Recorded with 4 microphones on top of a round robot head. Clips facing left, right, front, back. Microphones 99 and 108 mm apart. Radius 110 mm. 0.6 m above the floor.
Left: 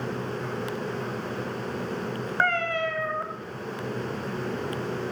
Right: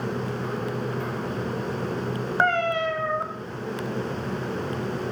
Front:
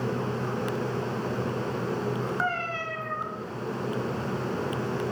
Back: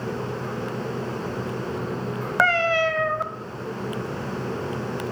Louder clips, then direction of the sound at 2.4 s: Right 3 dB, back 9 dB; 165° right.